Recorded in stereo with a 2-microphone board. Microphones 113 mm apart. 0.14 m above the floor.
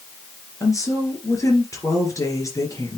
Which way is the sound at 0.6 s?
30° left (ahead or behind).